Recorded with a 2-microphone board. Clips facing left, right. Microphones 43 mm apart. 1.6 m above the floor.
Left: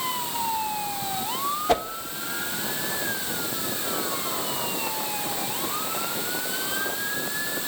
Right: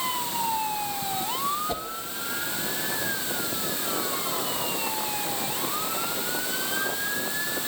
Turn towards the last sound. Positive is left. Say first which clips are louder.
# left 9 dB
turn(degrees=60)  # may be behind; listen again after turning